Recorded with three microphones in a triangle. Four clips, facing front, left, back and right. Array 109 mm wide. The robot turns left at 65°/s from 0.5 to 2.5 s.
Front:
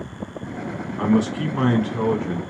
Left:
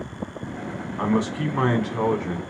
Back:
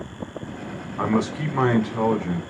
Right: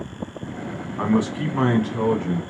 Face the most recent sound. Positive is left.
turn(degrees=105)